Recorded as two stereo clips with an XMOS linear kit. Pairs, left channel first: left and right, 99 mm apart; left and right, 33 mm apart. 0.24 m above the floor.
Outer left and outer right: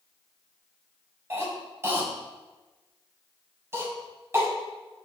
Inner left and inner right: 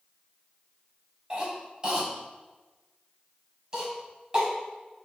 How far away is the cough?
About 1.5 m.